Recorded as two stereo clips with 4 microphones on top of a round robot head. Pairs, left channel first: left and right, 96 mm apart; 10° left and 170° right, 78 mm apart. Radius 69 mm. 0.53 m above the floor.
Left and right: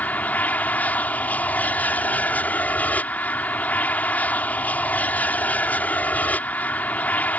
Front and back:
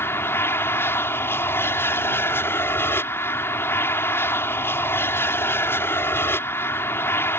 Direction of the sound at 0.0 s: 30° left.